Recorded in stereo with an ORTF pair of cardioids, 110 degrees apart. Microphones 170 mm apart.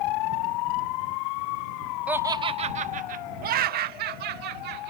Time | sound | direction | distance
2.1 | laughter | 10° right | ?